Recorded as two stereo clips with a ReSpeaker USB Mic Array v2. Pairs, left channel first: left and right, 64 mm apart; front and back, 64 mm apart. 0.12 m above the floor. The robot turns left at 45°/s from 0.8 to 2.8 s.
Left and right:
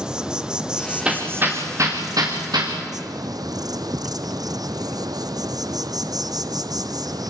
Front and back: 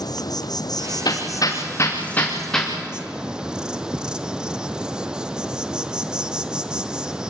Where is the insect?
10° right, 1.0 m; by 7.3 s 100° right, 1.0 m.